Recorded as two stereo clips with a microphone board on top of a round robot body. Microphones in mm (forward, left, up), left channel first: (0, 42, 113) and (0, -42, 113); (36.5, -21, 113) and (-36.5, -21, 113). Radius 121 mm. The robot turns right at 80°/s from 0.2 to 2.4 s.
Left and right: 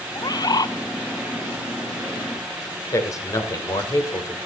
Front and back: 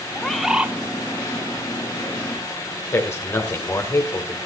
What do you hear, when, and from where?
0.1 s a bird: 75° left, 1.0 m; by 0.8 s 115° left, 1.0 m
2.9 s a man speaking: 45° left, 3 m